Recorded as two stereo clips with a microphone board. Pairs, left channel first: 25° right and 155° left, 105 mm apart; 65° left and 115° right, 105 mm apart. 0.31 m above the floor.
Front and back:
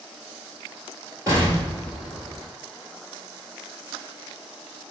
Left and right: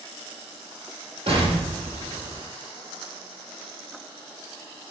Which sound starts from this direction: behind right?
An explosion, at 1.3 s.